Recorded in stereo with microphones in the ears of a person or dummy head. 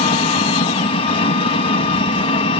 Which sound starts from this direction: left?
An engine running, at 0.0 s.